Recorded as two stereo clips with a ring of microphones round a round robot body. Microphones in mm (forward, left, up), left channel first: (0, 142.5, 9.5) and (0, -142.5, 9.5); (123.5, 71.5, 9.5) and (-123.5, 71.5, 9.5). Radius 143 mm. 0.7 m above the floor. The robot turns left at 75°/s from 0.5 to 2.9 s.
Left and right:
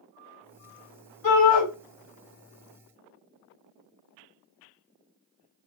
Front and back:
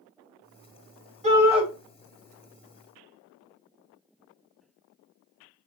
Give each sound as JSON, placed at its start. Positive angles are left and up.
{"t": 1.2, "sound": "a shout", "azimuth_deg": 120, "distance_m": 3.5}